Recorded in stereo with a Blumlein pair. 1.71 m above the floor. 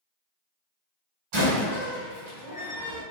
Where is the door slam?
45° right, 1.8 m.